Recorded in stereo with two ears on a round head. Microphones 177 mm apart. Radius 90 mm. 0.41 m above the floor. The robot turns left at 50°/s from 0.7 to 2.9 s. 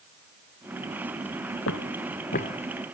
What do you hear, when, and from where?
1.7 s footsteps: 75° left (ahead or behind); by 2.6 s 30° left (ahead or behind)